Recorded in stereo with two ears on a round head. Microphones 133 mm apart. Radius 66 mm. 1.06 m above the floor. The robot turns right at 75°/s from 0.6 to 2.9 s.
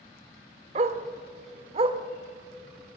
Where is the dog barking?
40° right (ahead or behind), 1.1 m; by 2.0 s 30° right (ahead or behind), 1.1 m.